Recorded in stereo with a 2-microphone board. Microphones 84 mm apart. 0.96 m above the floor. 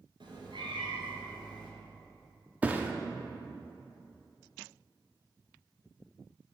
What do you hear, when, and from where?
0.2 s a cat meowing: 70° right (ahead or behind), 2.5 m; by 1.7 s 75° right (ahead or behind), 3 m
2.6 s a thud: 20° right (ahead or behind), 0.7 m